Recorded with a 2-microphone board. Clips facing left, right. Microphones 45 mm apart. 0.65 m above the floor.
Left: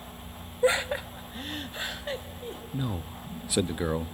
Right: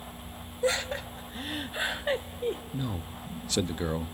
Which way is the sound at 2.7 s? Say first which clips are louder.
Left 1 dB; 15° left (ahead or behind).